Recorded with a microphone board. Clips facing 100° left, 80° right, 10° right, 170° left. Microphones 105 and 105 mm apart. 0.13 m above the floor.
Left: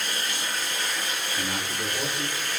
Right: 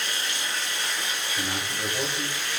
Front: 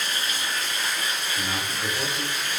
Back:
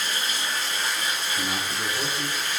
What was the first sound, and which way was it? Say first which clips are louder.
Running water: left 1 dB, even; 125° left.